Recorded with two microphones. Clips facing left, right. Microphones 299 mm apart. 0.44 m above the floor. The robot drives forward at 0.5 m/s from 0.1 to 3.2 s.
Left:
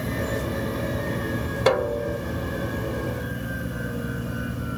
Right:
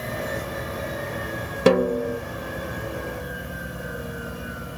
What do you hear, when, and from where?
1.7 s a snare drum: 35° right (ahead or behind); by 2.2 s 40° right (ahead or behind)